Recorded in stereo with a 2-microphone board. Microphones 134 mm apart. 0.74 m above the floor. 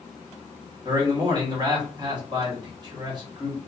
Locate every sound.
0.8 s a man speaking: 30° right (ahead or behind), 1.3 m